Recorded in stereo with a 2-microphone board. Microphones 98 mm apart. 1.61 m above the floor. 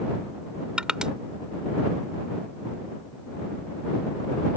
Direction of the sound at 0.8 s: 10° right (ahead or behind).